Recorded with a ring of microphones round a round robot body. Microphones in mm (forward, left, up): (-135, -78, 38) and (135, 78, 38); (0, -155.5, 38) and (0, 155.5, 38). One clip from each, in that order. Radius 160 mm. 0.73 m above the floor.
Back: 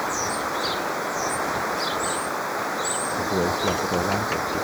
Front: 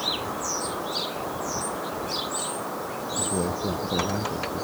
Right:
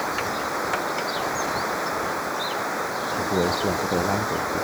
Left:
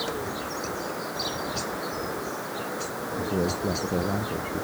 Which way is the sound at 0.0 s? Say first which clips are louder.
Back 3 dB, right 5 dB; 130° right.